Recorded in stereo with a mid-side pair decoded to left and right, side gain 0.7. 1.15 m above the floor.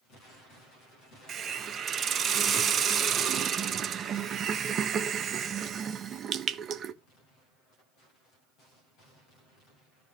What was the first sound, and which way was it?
A hiss, 40° right.